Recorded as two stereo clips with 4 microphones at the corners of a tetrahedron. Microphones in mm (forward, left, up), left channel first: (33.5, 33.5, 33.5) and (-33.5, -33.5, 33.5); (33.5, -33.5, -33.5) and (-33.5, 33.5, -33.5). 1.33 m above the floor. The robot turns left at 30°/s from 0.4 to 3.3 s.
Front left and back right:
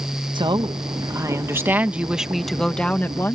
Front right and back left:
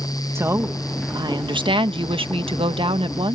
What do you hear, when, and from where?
0.3 s a woman speaking: 165° right; by 3.3 s 110° left